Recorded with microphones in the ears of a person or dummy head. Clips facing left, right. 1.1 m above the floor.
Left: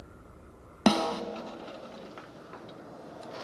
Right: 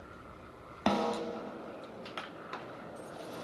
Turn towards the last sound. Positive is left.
turn(degrees=50)  # may be behind; listen again after turning